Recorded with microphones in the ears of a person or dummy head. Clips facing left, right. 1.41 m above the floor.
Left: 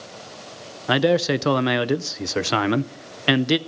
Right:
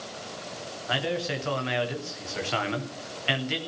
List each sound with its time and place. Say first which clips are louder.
0.9 s a man speaking: left 11 dB; 70° left (ahead or behind), 0.6 m